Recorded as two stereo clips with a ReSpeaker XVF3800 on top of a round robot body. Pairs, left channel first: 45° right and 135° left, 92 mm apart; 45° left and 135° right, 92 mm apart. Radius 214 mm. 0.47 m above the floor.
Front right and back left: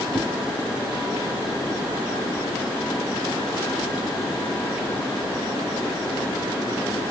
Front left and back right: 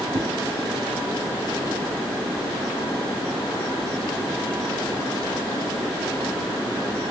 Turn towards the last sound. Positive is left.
turn(degrees=-145)